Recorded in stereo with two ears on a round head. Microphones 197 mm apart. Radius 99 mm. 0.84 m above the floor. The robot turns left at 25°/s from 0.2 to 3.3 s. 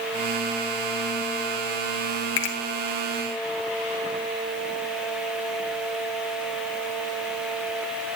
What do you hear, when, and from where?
2.4 s a finger snap: 65° left (ahead or behind), 1.2 m